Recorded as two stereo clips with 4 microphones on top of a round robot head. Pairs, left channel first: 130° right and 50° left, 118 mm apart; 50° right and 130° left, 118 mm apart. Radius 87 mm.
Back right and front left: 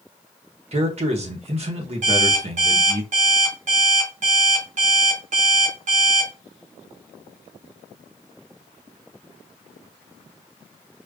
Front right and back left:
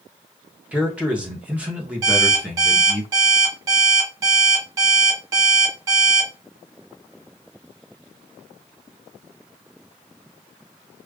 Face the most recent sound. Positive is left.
turn(degrees=70)